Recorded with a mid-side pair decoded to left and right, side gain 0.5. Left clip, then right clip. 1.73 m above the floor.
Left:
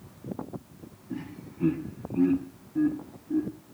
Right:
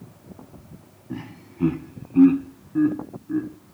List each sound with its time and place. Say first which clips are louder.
1.1 s laughter: right 2 dB; 45° right, 1.7 m; by 3.5 s 75° right, 3 m